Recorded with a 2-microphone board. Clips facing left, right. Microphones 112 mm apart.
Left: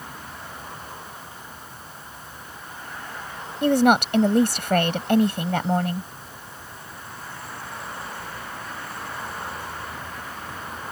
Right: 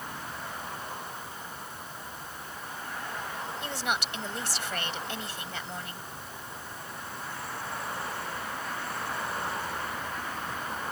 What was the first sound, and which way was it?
A woman speaking, 65° left (ahead or behind).